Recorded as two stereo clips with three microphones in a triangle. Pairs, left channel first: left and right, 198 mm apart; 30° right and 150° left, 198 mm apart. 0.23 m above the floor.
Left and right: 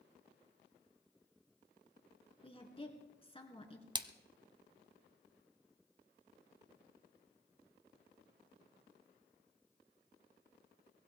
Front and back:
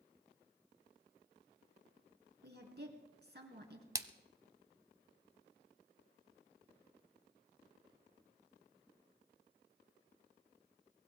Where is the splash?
145° right, 0.8 m.